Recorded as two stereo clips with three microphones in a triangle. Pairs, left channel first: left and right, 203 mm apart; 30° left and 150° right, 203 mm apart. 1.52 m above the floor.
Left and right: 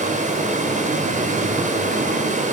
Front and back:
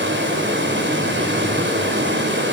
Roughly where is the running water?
Behind right.